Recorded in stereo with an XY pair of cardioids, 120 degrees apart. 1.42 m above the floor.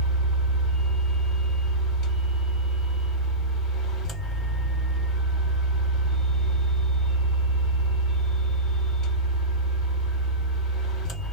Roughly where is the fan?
Ahead left.